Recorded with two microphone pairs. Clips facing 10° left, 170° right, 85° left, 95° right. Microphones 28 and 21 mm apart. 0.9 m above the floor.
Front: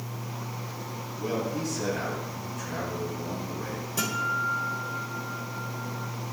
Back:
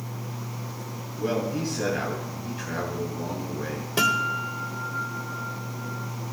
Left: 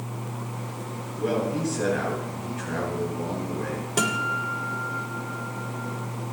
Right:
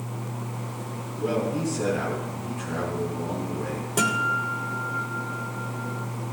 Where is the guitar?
150° left, 2.5 m.